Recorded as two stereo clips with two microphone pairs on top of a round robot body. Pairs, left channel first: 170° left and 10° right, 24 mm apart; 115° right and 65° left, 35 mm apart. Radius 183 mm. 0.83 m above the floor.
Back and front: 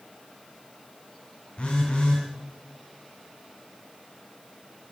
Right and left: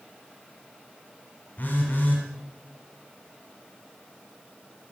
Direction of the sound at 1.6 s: 145° right.